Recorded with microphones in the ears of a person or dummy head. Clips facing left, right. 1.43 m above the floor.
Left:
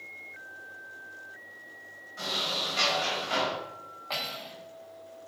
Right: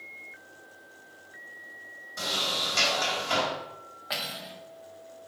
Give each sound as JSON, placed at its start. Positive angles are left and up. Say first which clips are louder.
{"t": 2.2, "sound": "a sliding door", "louder": "right 1 dB", "side_deg": -55, "distance_m": 2.5}
{"t": 4.1, "sound": "cutlery clinking", "louder": "even", "side_deg": -15, "distance_m": 1.1}